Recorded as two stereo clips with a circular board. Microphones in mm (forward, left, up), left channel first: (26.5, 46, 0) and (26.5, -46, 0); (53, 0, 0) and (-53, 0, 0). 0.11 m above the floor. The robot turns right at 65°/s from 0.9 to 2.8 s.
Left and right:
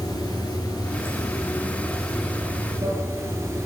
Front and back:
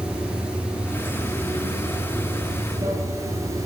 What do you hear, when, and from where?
0.0 s running water: 100° left, 0.8 m; by 3.7 s 135° right, 0.8 m